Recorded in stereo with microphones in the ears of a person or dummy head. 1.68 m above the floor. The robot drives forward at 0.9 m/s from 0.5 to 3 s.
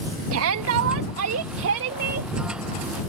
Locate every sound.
0.3 s a shout: 75° right (ahead or behind); by 2.3 s 55° right (ahead or behind)